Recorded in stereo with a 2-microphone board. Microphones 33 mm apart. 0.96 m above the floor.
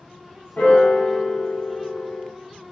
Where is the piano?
55° left (ahead or behind), 0.7 m.